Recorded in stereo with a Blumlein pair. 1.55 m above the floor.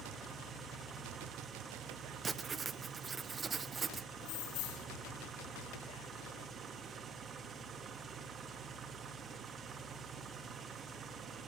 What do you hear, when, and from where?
0.0 s an engine running: 20° right, 2 m
2.2 s writing: 15° right, 0.9 m
4.2 s keys jangling: 45° left, 1.4 m